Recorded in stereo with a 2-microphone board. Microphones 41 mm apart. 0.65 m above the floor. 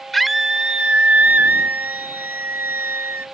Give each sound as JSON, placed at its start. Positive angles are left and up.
{"t": 0.1, "sound": "a scream", "side_deg": 0}